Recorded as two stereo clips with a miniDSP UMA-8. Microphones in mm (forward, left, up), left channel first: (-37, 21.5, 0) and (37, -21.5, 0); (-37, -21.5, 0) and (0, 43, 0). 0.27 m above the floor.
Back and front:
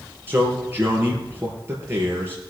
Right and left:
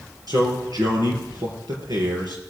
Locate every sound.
0.3 s a man speaking: 35° left, 4.5 m